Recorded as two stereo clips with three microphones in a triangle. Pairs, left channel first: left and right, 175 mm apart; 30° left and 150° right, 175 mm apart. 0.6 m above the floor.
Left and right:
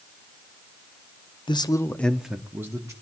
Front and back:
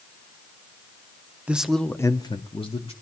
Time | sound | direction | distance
1.5 | a man speaking | 135° left | 0.6 m